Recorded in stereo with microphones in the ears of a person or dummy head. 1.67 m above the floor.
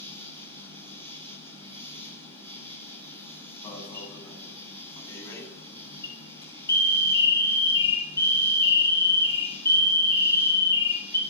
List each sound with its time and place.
0.0 s an insect: 30° right (ahead or behind), 7.5 m
3.6 s an alarm: 20° left (ahead or behind), 9 m